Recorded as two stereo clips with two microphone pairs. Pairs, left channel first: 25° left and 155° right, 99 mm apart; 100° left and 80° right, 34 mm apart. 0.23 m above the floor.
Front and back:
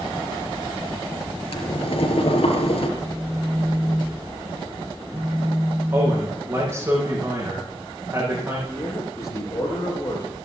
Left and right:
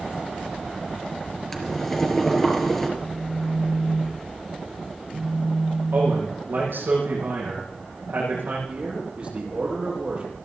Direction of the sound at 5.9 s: 90° right.